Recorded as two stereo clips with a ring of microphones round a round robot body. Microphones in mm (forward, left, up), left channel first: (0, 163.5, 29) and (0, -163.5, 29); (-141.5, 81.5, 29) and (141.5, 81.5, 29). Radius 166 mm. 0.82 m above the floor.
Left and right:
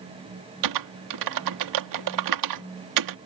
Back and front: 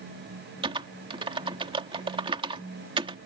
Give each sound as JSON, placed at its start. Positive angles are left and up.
{"t": 0.6, "sound": "typing on a keyboard", "azimuth_deg": -75}